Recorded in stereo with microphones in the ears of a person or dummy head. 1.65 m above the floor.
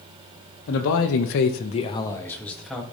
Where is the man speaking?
70° left (ahead or behind), 0.8 m; by 2.8 s centre (ahead or behind), 1.3 m.